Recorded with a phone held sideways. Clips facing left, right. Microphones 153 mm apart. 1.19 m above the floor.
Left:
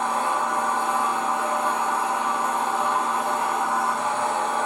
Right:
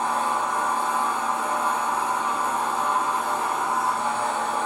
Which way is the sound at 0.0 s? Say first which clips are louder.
Left 1 dB; 85° left.